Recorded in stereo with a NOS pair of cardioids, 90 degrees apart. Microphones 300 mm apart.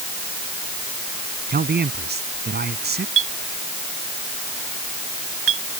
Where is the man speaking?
35° right.